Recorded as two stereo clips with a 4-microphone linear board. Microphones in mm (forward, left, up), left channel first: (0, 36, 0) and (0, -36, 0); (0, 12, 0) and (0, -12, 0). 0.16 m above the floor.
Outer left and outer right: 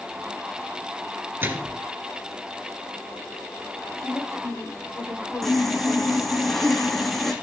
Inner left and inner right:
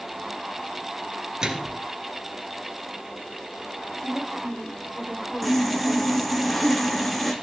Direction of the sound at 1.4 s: 30° right (ahead or behind).